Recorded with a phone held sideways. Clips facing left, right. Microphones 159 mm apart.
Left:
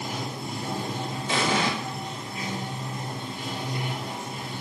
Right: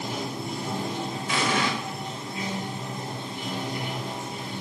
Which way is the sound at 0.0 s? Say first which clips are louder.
Right 2 dB; 25° right (ahead or behind).